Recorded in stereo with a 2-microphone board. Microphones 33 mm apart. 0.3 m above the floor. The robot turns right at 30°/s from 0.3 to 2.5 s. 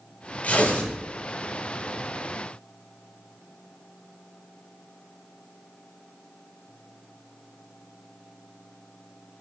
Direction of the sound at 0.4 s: 50° left (ahead or behind).